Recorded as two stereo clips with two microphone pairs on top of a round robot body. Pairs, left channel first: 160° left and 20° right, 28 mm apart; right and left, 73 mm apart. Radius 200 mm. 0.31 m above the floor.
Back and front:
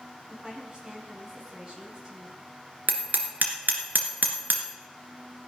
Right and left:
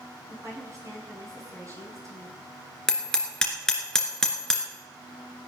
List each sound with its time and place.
0.3 s a woman speaking: 45° left, 6 m
2.9 s hammering: 10° right, 2 m